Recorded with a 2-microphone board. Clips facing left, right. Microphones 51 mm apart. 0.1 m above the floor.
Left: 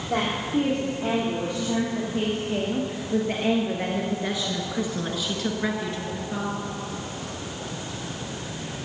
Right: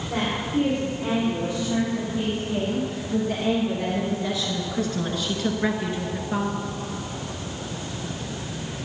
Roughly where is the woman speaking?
Left.